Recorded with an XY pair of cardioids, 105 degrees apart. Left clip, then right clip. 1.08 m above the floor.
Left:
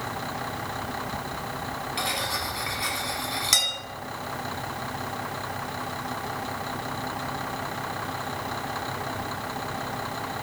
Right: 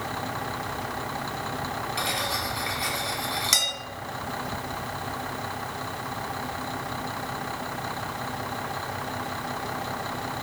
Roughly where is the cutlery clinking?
Ahead.